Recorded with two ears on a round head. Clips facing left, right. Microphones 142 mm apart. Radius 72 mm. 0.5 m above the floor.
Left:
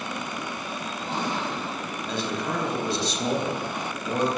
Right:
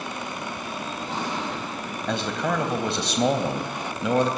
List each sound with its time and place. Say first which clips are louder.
2.1 s a man speaking: right 4 dB; 55° right (ahead or behind), 3.5 m